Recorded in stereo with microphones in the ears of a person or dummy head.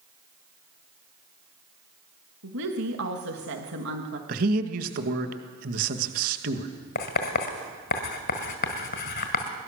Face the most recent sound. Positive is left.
turn(degrees=55)  # may be behind; listen again after turning